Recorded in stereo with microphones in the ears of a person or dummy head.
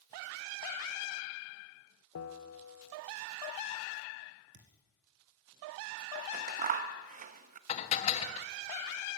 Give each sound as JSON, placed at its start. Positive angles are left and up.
{"t": 2.1, "sound": "a bell", "side_deg": 85, "distance_m": 1.5}
{"t": 4.5, "sound": "a thud", "side_deg": -60, "distance_m": 3.5}
{"t": 6.2, "sound": "scissors", "side_deg": -40, "distance_m": 0.9}
{"t": 7.7, "sound": "dishes clattering", "side_deg": 40, "distance_m": 1.4}